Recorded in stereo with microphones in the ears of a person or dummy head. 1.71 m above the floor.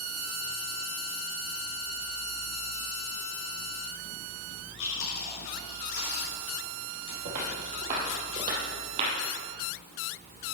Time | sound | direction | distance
4.8 | chewing | 60° left (ahead or behind) | 4 m
7.2 | footsteps | 50° right (ahead or behind) | 2.5 m